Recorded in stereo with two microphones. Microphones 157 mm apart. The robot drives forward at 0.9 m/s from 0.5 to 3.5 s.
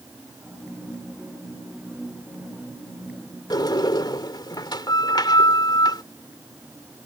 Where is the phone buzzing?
I don't hear a phone buzzing.